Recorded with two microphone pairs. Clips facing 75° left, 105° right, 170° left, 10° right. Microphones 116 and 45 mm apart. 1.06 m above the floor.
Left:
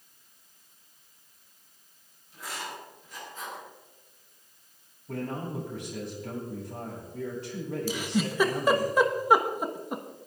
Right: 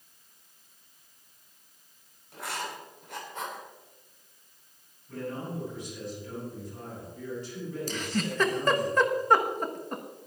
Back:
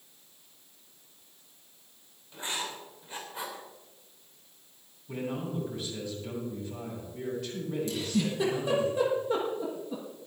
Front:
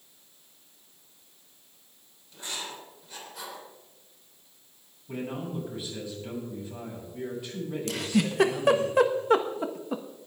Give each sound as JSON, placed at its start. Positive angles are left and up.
{"t": 2.3, "sound": "writing", "azimuth_deg": -125, "distance_m": 3.5}
{"t": 5.1, "sound": "a man speaking", "azimuth_deg": 70, "distance_m": 6.5}
{"t": 7.9, "sound": "a giggle", "azimuth_deg": -5, "distance_m": 1.2}